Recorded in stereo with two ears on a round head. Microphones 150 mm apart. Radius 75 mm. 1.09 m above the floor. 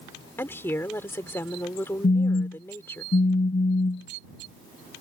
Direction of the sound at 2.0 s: 55° left (ahead or behind).